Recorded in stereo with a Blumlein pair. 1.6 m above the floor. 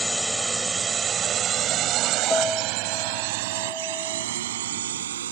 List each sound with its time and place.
0.0 s a drone: 5° left; by 5.3 s 65° right
2.3 s a piano: 10° left